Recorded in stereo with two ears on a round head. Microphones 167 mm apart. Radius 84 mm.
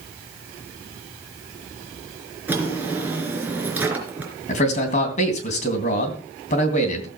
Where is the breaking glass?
I don't hear breaking glass.